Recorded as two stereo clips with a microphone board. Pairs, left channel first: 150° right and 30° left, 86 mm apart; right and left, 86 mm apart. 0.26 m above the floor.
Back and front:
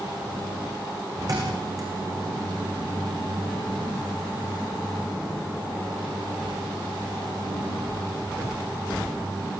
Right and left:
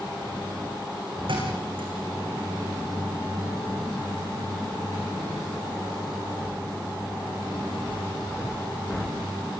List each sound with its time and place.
1.3 s a thud: 75° left, 8.5 m